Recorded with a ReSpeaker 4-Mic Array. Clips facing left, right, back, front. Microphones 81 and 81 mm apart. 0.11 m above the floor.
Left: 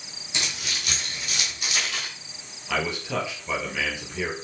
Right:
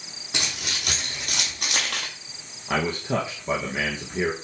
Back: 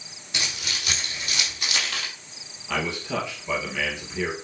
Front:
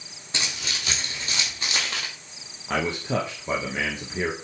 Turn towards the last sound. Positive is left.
turn(degrees=-45)